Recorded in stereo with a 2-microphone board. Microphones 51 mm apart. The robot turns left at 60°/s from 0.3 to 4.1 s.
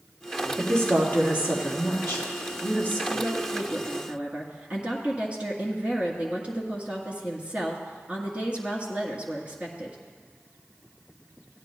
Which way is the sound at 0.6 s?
170° left.